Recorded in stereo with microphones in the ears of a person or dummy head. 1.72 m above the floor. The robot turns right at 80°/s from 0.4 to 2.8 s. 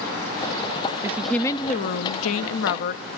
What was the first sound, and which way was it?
A woman speaking, 15° right.